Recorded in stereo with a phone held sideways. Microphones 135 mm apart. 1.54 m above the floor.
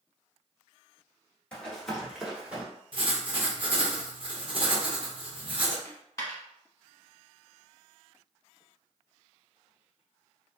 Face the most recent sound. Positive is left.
turn(degrees=25)  # may be behind; listen again after turning